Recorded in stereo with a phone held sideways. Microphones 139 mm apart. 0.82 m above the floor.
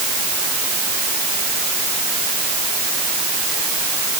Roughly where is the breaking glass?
I don't hear breaking glass.